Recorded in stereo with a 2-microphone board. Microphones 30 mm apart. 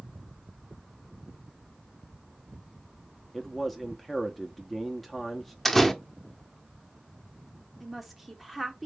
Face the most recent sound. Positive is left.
turn(degrees=-5)  # may be behind; listen again after turning